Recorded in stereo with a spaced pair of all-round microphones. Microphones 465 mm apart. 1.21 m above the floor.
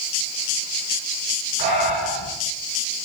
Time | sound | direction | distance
1.6 | breathing | 55° right (ahead or behind) | 6.5 m